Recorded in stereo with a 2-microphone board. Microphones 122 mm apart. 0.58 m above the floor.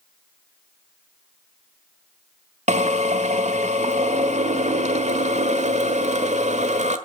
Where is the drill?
65° right (ahead or behind), 1.5 m.